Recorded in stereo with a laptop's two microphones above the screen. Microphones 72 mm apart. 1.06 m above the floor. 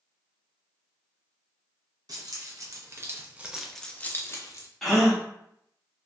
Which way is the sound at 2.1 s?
60° right (ahead or behind).